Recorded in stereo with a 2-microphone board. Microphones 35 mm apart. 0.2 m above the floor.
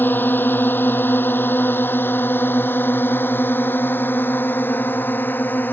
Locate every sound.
0.0 s a drone: 70° left (ahead or behind); by 5.7 s 65° left (ahead or behind)